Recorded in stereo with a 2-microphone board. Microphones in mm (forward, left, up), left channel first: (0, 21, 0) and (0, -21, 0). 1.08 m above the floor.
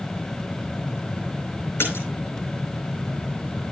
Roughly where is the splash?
Left.